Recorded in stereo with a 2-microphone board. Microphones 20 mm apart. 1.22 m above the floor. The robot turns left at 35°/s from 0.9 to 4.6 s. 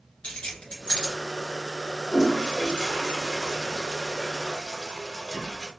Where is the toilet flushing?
60° left (ahead or behind), 2.0 m; by 5.7 s 20° right (ahead or behind), 2.0 m.